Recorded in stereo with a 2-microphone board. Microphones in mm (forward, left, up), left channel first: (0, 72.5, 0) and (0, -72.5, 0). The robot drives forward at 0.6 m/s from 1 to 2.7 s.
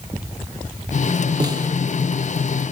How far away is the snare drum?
About 2.5 m.